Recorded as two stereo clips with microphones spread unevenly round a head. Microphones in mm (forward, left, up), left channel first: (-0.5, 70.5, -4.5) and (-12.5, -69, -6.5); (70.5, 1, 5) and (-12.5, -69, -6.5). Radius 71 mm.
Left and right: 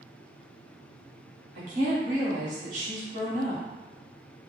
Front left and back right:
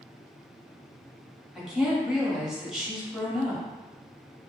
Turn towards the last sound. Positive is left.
turn(degrees=-55)